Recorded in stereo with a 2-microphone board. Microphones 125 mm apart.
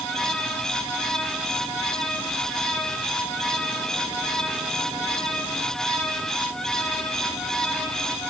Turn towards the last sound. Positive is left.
No sound to turn to.